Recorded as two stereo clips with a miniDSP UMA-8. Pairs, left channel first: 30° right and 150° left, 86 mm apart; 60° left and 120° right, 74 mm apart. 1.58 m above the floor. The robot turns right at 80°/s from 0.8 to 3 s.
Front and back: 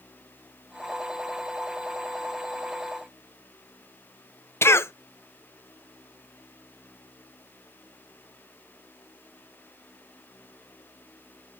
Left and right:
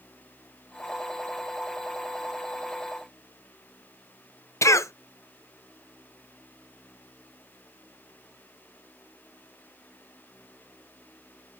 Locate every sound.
4.6 s a cough: 25° left, 0.6 m